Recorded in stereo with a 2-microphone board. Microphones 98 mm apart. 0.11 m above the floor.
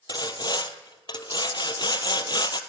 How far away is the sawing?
About 0.7 m.